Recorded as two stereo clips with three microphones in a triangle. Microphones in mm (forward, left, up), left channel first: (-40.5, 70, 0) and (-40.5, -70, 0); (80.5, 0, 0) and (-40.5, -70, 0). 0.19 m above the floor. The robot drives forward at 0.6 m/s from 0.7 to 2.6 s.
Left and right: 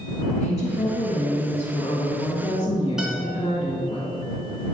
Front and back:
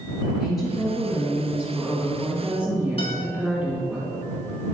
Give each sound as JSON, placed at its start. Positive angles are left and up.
{"t": 0.4, "sound": "a woman speaking", "azimuth_deg": 90, "distance_m": 2.0}
{"t": 3.0, "sound": "a guitar", "azimuth_deg": -5, "distance_m": 2.0}